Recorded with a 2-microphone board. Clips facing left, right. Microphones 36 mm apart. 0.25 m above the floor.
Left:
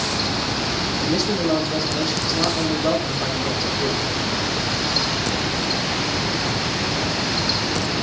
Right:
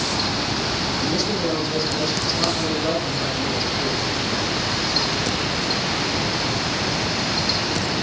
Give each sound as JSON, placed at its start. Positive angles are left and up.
{"t": 1.0, "sound": "a man speaking", "side_deg": 15, "distance_m": 8.5}